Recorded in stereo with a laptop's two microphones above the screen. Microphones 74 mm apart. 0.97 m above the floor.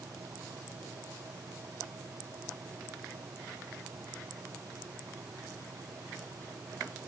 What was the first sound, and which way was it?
A fan, 55° right (ahead or behind).